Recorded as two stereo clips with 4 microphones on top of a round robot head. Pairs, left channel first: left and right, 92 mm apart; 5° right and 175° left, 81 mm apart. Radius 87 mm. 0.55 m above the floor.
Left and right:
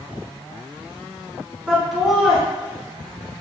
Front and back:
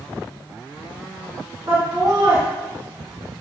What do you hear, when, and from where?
1.7 s laughter: 175° right, 1.2 m